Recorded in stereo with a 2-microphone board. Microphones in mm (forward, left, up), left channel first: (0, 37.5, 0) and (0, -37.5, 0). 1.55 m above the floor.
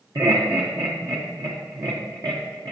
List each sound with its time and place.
0.1 s laughter: 60° right (ahead or behind), 1.0 m